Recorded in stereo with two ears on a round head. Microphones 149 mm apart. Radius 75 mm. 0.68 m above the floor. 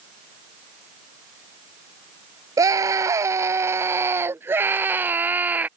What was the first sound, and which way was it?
A scream, 20° right (ahead or behind).